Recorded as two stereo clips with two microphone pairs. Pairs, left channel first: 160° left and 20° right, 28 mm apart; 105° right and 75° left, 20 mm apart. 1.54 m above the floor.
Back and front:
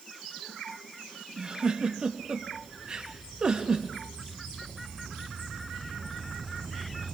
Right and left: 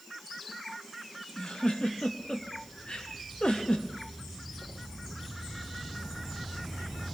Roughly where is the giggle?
Right.